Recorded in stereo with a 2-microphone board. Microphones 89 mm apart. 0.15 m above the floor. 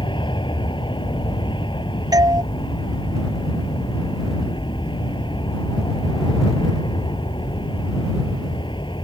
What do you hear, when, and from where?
0.0 s an aircraft: 60° left (ahead or behind)
2.1 s a doorbell: 40° right (ahead or behind)